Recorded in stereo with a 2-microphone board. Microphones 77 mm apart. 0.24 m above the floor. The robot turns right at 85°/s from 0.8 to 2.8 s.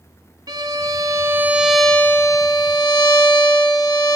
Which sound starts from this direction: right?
A violin, at 0.5 s.